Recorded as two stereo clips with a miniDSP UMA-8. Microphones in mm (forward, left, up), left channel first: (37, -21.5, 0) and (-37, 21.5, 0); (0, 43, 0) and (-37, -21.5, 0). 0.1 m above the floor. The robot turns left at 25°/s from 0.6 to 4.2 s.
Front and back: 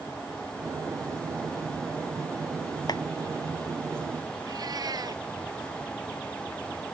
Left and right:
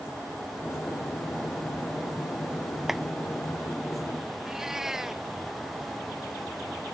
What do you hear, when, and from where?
2.9 s a clap: 35° right; by 3.0 s 40° right
4.5 s a cat meowing: 155° left